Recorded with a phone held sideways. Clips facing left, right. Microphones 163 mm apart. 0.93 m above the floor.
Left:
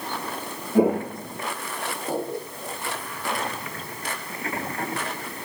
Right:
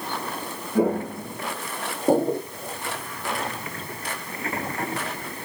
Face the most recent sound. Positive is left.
turn(degrees=-50)  # may be behind; listen again after turning